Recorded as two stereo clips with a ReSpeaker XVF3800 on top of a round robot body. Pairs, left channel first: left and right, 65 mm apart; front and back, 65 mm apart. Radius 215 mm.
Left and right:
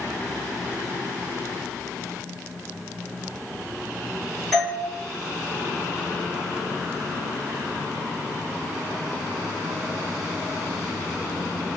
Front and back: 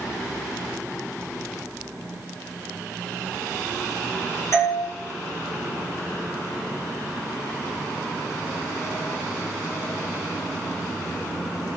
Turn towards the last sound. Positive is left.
turn(degrees=10)